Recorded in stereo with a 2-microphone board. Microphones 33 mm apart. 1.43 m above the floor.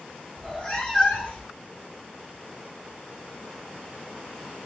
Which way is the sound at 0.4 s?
30° left (ahead or behind).